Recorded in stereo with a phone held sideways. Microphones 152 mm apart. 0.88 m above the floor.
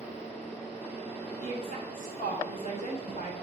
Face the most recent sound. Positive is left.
turn(degrees=60)  # may be behind; listen again after turning